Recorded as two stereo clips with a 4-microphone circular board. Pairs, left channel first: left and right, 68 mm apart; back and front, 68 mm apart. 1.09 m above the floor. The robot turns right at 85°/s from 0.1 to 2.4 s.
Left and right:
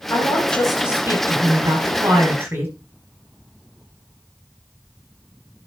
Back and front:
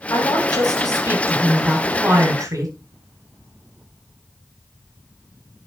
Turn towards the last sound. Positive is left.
turn(degrees=-35)